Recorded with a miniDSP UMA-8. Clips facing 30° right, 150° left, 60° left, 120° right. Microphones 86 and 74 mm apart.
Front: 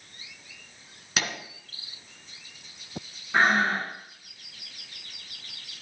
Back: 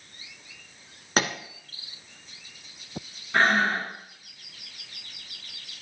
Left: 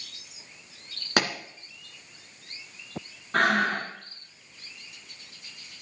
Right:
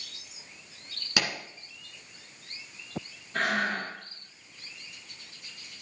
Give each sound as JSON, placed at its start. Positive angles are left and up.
{"t": 1.2, "sound": "a pop", "azimuth_deg": 100, "distance_m": 2.0}
{"t": 3.3, "sound": "breathing", "azimuth_deg": 50, "distance_m": 3.5}